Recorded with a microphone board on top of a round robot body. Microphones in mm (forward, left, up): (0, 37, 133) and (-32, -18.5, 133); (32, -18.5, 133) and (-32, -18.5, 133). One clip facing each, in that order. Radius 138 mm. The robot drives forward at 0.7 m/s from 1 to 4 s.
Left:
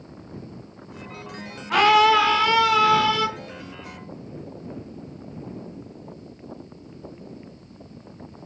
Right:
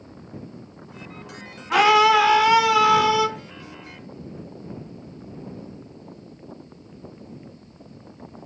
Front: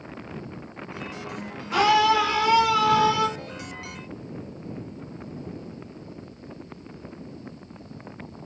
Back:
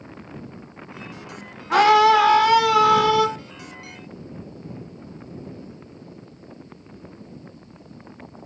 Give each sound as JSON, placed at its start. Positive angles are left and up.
{"t": 1.7, "sound": "a scream", "azimuth_deg": 155, "distance_m": 2.0}